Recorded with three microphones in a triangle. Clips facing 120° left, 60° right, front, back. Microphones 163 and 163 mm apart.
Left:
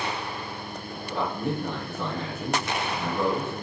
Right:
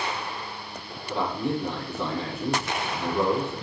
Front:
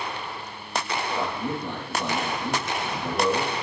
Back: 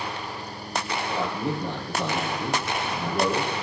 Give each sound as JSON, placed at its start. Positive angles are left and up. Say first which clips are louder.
{"t": 1.1, "sound": "a man speaking", "louder": "right 2 dB, back 2 dB", "azimuth_deg": -140, "distance_m": 7.0}